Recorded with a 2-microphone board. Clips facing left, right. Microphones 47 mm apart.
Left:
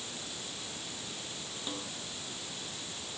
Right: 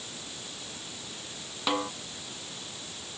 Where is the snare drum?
85° right.